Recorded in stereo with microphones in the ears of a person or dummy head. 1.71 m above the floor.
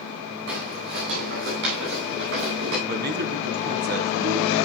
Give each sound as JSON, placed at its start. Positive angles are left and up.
{"t": 0.5, "sound": "footsteps", "side_deg": -65, "distance_m": 7.0}
{"t": 2.9, "sound": "a man speaking", "side_deg": -45, "distance_m": 1.6}